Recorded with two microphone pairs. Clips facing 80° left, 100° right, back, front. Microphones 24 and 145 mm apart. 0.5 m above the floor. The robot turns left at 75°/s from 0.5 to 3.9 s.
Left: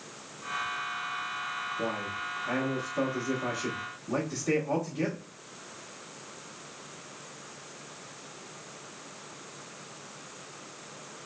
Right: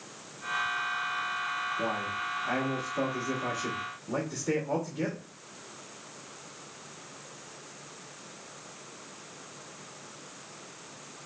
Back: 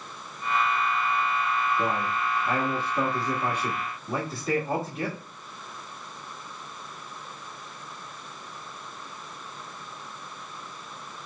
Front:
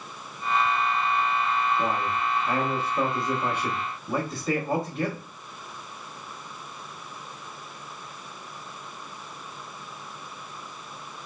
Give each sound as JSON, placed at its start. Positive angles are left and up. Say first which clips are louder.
{"t": 1.8, "sound": "a man speaking", "louder": "right 1 dB, front 1 dB", "azimuth_deg": -105, "distance_m": 1.2}